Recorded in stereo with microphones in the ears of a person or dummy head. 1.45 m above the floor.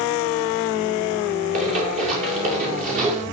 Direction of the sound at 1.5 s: 40° right (ahead or behind).